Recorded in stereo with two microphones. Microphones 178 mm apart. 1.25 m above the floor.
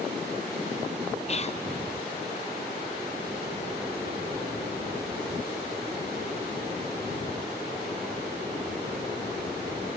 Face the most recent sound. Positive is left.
turn(degrees=40)  # may be behind; listen again after turning